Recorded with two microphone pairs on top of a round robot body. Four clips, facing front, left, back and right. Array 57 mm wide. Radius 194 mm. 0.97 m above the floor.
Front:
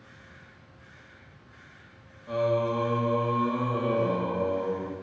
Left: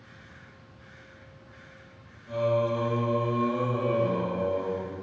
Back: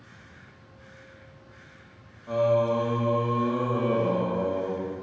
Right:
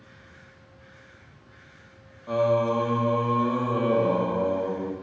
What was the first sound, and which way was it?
Singing, 105° right.